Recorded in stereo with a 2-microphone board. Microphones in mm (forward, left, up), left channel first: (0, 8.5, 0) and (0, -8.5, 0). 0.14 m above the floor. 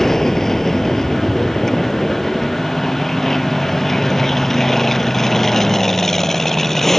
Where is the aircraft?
20° left (ahead or behind); by 7.0 s 15° left (ahead or behind).